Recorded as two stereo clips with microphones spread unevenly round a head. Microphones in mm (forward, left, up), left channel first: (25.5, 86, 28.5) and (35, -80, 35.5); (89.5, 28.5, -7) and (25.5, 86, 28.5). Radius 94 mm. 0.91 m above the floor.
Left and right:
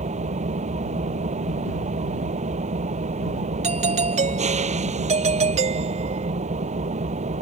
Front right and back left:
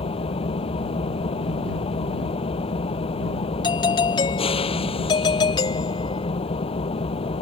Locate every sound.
0.0 s an engine running: 35° right
3.6 s a doorbell: 40° right